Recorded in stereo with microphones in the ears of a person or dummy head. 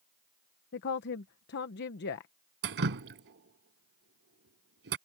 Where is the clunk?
No clunk in this recording.